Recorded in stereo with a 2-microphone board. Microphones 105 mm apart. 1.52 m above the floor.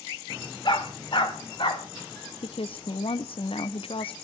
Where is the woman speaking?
65° left (ahead or behind), 0.6 m.